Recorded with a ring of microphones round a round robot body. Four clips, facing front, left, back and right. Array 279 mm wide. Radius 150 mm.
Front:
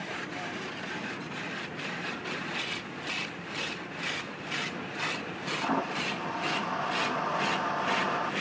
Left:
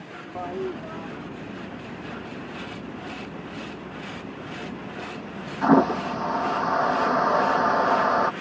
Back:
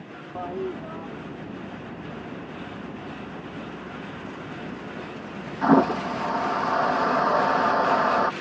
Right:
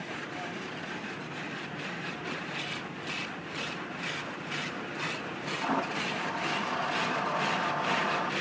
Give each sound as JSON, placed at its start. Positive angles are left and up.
{"t": 0.3, "sound": "a toilet flushing", "azimuth_deg": 130}